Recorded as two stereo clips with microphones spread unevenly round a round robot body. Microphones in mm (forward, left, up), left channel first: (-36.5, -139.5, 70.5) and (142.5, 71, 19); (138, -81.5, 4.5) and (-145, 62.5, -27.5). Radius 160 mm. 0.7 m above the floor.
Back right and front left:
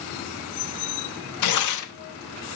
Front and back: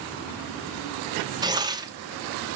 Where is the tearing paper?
135° right, 1.0 m.